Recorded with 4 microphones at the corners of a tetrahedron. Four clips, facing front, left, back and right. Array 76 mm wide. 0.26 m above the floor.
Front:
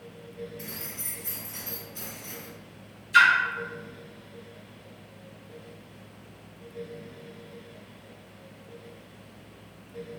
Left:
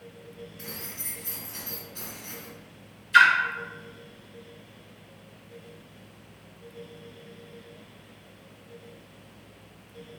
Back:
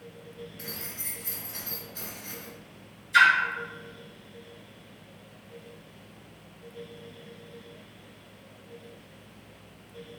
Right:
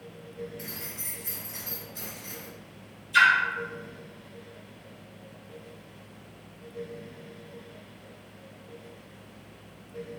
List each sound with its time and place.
0.6 s keys jangling: 125° left, 1.6 m
3.1 s a splash: 85° left, 0.7 m